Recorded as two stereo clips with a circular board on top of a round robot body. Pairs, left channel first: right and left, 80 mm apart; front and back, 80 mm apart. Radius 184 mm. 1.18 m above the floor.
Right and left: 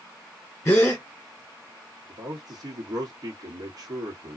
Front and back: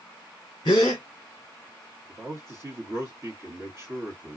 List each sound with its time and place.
0.7 s a gasp: 35° right, 1.1 m
2.1 s a man speaking: 125° left, 1.4 m